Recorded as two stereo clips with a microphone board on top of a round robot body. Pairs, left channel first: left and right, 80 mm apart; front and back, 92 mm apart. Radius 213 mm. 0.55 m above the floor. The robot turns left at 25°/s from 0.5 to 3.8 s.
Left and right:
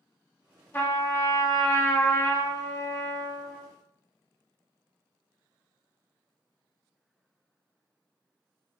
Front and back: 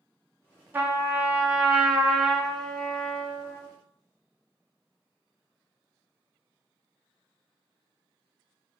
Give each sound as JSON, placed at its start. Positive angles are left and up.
{"t": 0.7, "sound": "a trumpet", "azimuth_deg": 130, "distance_m": 0.8}